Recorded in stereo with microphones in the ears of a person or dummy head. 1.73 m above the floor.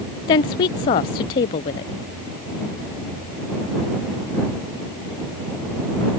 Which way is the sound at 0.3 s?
20° left (ahead or behind).